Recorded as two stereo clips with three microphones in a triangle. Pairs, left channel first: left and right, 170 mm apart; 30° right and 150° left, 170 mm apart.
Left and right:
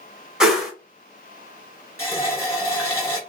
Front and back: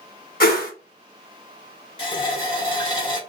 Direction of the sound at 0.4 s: 5° right.